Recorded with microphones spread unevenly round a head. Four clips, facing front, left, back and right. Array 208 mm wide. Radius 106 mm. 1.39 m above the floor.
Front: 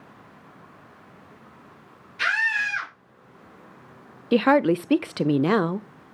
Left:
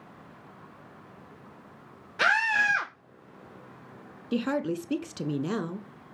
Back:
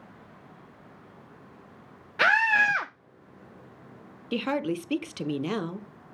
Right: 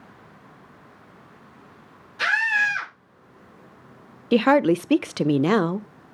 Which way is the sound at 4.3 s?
50° right.